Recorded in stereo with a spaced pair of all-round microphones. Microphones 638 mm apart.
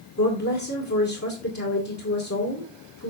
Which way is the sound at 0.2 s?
25° left (ahead or behind).